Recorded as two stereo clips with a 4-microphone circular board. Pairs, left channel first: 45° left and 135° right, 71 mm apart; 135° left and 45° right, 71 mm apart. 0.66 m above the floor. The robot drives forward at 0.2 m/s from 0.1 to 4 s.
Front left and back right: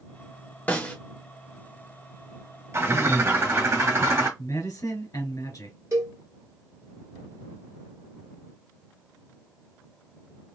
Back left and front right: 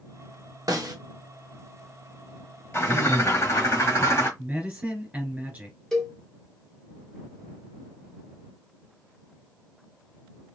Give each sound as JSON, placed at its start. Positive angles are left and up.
{"t": 0.7, "sound": "a snare drum", "azimuth_deg": -20, "distance_m": 0.8}
{"t": 2.7, "sound": "a bird", "azimuth_deg": 180, "distance_m": 1.2}
{"t": 4.4, "sound": "a man speaking", "azimuth_deg": 20, "distance_m": 1.6}
{"t": 5.9, "sound": "a cowbell", "azimuth_deg": -145, "distance_m": 1.1}